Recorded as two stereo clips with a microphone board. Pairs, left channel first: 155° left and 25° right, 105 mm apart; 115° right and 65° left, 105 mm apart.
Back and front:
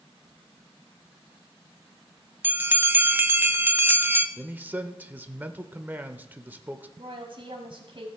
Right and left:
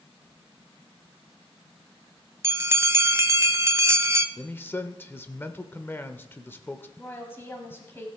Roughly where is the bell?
Ahead left.